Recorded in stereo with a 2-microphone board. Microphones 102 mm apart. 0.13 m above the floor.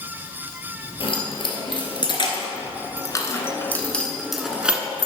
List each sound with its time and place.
1.0 s keys jangling: 60° left (ahead or behind), 2.0 m; by 5.1 s 20° right (ahead or behind), 1.2 m